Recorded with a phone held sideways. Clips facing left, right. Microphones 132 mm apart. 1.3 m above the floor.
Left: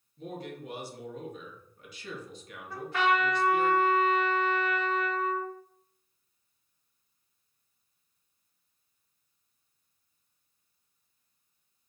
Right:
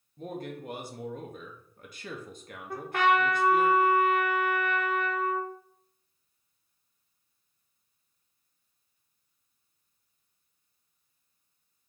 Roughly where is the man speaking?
Right.